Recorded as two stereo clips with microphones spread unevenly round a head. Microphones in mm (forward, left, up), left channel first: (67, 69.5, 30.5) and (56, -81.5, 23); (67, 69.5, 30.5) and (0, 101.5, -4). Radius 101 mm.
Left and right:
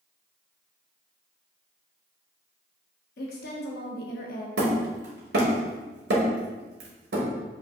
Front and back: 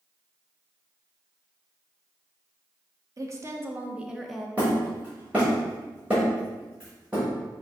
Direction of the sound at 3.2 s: 120° left.